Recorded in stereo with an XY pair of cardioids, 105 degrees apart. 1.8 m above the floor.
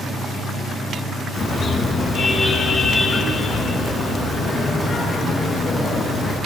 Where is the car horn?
55° left, 10 m; by 6.4 s 45° left, 13.5 m.